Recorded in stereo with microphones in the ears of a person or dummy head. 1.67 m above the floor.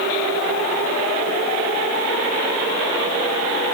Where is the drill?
I don't hear a drill.